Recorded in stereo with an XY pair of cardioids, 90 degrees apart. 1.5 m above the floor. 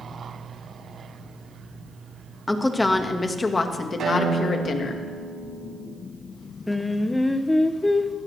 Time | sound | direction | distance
2.5 | a woman speaking | 15° left | 2 m
4.0 | a guitar | 60° right | 8.5 m
6.7 | singing | 15° left | 0.9 m